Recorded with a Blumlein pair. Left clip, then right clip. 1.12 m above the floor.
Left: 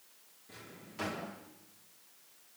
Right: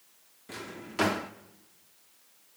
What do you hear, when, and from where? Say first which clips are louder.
0.5 s a drawer: right 11 dB; 35° right, 1.3 m